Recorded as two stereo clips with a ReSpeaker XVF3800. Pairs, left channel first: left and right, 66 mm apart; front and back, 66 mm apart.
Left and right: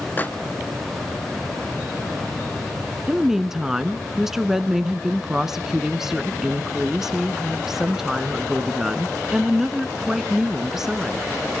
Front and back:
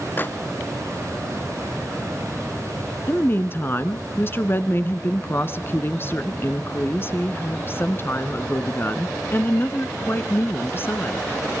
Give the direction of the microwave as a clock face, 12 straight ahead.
11 o'clock.